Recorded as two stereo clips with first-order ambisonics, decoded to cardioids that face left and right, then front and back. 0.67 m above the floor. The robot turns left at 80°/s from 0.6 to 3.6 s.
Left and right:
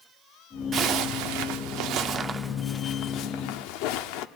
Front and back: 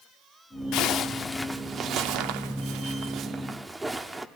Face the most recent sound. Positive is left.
turn(degrees=95)